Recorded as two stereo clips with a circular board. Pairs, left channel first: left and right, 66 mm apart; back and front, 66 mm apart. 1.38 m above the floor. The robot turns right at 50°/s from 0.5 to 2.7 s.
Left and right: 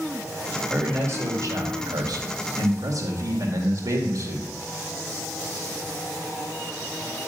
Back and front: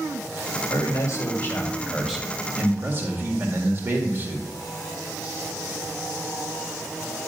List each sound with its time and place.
0.7 s a man speaking: 155° right, 1.8 m; by 4.5 s 55° right, 1.8 m